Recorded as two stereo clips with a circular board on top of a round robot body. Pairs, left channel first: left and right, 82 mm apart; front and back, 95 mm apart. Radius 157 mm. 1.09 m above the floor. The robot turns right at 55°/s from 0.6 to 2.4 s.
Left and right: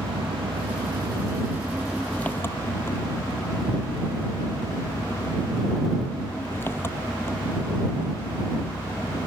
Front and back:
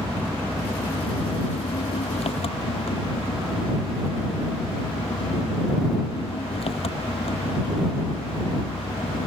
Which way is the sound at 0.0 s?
75° right.